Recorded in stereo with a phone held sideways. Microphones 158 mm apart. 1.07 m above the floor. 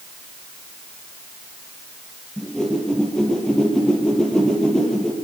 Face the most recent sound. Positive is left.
turn(degrees=5)  # may be behind; listen again after turning